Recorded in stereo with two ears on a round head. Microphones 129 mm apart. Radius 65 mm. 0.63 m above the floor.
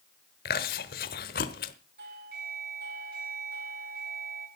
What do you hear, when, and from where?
0.5 s chewing: 70° left (ahead or behind), 1.0 m
2.0 s a doorbell: 80° right, 7 m